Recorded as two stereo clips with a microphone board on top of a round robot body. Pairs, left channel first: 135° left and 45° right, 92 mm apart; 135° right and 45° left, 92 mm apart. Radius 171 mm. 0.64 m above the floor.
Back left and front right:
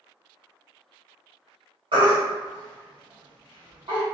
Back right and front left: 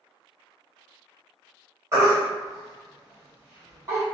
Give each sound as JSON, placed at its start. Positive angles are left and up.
{"t": 1.9, "sound": "a baby crying", "azimuth_deg": -15, "distance_m": 1.4}